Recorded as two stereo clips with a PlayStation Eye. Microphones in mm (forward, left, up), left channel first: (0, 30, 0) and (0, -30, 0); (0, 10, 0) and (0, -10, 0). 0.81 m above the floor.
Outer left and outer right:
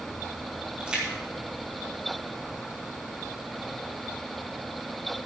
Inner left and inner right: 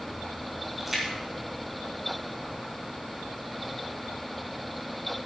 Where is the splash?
20° right (ahead or behind), 3.5 m.